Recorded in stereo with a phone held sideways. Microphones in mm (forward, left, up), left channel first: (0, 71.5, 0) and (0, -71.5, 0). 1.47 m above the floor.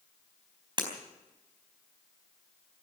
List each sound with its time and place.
0.8 s breaking glass: 35° right (ahead or behind), 3.5 m